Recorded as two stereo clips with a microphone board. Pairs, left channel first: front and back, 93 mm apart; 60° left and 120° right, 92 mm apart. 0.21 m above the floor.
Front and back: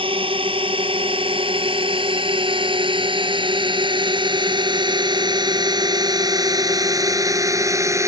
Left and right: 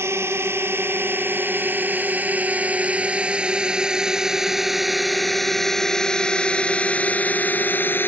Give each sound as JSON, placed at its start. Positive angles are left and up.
{"t": 0.0, "sound": "a drone", "azimuth_deg": 180}